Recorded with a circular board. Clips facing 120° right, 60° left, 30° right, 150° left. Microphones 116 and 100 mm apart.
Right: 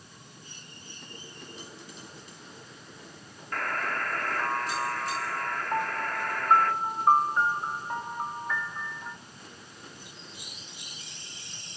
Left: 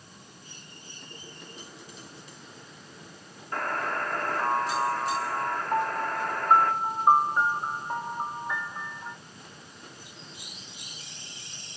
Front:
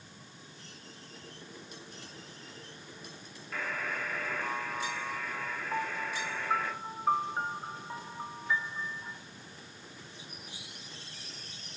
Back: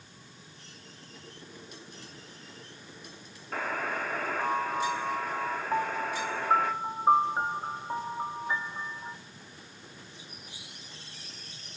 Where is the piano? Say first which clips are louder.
Left 2 dB, back 4 dB; 125° left, 0.9 m.